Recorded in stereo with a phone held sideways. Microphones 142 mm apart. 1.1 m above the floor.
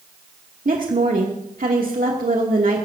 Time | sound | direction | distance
0.7 | a woman speaking | 85° right | 2.5 m